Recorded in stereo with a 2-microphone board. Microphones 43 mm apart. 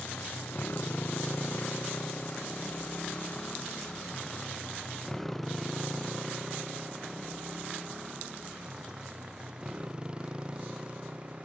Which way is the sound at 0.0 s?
55° left (ahead or behind).